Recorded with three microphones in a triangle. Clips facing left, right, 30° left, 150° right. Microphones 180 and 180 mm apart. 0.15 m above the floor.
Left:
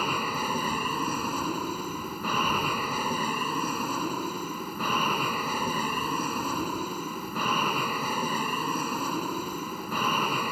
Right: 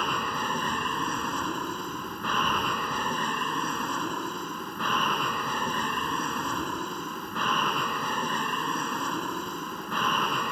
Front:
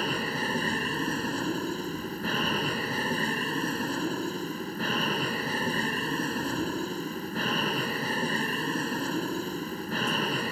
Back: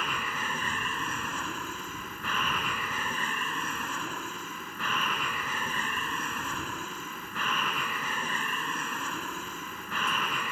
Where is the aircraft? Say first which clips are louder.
Left 1 dB, front 6 dB; 10° left.